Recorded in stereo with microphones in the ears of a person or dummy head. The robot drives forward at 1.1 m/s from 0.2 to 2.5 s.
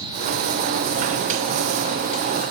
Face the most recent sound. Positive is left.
No sound to turn to.